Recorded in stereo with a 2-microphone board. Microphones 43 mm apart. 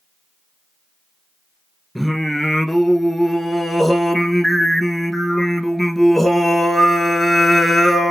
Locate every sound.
1.9 s singing: 5° left (ahead or behind), 0.9 m